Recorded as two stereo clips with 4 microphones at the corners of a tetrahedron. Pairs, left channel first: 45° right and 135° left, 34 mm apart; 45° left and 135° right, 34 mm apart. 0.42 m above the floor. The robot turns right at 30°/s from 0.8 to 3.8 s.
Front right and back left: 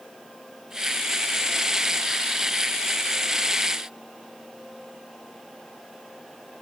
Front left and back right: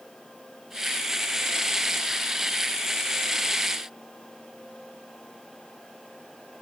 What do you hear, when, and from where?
Only background noise.